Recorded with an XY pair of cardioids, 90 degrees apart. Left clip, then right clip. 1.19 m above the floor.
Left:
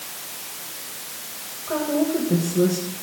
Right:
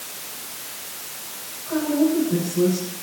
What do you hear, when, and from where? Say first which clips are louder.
1.7 s a woman speaking: right 1 dB; 70° left, 5.5 m